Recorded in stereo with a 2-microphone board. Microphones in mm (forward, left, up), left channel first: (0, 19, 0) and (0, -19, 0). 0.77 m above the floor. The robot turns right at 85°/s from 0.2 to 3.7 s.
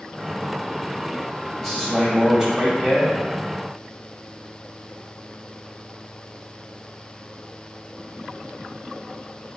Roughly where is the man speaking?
Centre.